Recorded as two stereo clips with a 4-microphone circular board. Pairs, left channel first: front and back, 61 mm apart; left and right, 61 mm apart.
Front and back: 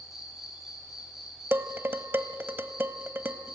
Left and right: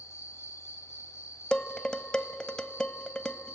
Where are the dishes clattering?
160° left, 0.8 m.